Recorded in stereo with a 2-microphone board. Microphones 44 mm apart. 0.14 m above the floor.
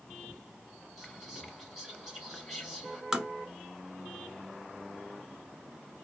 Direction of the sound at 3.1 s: 15° right (ahead or behind).